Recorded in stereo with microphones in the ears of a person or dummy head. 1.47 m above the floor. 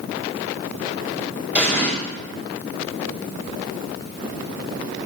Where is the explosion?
10° right (ahead or behind), 5.5 m.